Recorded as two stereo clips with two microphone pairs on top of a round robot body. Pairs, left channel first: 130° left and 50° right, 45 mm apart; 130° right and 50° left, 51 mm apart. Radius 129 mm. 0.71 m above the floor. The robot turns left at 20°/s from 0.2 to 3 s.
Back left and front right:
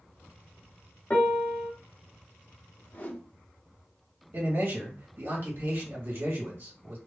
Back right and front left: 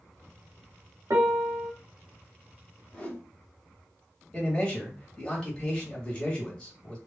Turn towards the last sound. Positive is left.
turn(degrees=-55)